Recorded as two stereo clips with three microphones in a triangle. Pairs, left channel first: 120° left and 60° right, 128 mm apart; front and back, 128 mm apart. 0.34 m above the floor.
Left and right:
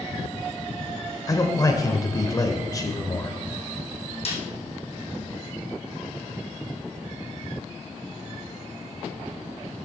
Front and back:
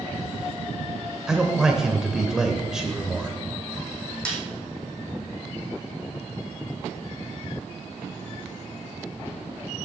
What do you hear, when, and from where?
1.3 s a man speaking: 100° left, 1.0 m
4.2 s a snare drum: 80° left, 3 m